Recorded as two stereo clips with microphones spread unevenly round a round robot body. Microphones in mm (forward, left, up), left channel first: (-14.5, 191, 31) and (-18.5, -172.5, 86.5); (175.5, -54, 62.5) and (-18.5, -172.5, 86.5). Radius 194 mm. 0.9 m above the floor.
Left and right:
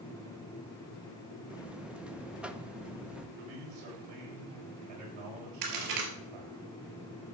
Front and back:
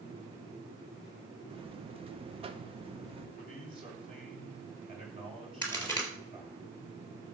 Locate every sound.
1.5 s a buzzer: 165° left, 0.8 m
3.4 s a man speaking: 80° right, 6 m
5.6 s a crack: 50° right, 4 m